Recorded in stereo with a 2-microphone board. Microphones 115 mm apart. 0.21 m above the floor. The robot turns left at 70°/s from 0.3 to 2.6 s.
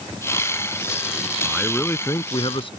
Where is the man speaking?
170° right; by 2.7 s 105° left.